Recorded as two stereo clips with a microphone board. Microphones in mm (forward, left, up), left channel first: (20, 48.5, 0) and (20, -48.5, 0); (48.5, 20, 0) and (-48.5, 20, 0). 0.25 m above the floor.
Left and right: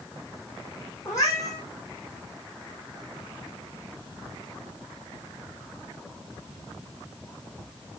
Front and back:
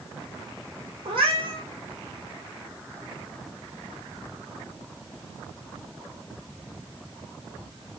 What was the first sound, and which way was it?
A cat meowing, 145° left.